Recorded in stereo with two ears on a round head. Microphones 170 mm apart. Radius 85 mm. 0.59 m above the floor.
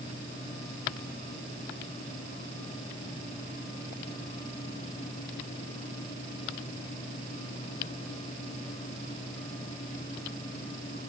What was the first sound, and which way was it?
Only background noise.